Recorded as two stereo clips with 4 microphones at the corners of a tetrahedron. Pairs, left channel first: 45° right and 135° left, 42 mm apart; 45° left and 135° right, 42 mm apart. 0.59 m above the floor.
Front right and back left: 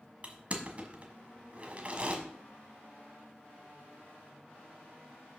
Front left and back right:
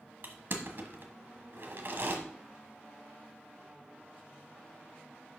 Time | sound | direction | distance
0.2 | crushing | 170° right | 1.5 m